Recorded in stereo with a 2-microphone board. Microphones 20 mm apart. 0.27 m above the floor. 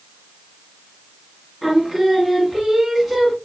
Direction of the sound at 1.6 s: Centre (ahead or behind).